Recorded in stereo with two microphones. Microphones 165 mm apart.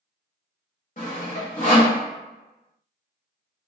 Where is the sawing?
50° left (ahead or behind), 1.0 m.